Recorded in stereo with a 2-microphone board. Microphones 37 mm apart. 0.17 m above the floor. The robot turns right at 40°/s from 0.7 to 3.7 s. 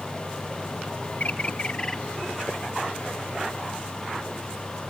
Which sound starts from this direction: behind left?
A bird, at 1.2 s.